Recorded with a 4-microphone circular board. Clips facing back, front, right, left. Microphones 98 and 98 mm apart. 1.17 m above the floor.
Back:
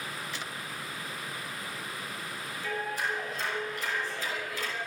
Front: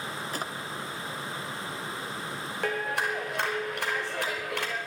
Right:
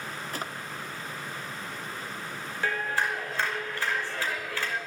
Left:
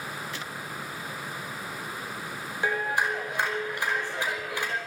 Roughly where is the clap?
Ahead.